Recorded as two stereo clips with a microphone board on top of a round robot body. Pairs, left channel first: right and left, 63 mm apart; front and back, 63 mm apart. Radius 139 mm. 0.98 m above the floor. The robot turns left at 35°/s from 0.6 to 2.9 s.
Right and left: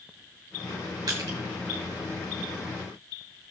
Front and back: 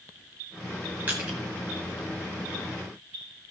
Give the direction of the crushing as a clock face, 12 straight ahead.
8 o'clock.